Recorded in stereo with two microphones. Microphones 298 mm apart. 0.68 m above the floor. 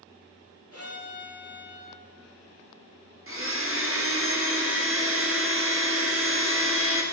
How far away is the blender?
About 1.2 m.